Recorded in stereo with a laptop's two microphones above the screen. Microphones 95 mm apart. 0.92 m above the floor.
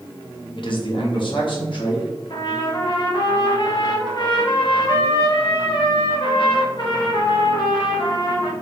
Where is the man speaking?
60° left (ahead or behind), 1.0 m.